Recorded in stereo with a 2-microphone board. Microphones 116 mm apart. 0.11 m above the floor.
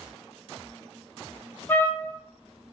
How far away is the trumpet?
About 0.8 m.